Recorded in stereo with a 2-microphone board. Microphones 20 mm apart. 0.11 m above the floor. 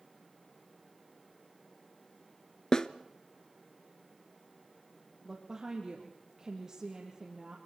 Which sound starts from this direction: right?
A woman speaking, at 5.2 s.